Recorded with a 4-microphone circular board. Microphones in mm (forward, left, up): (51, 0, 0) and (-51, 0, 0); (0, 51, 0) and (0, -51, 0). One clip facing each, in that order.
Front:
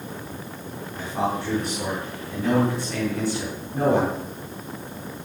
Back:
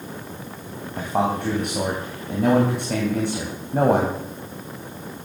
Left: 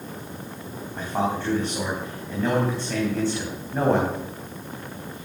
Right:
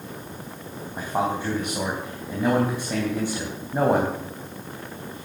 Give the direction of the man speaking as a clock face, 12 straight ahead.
6 o'clock.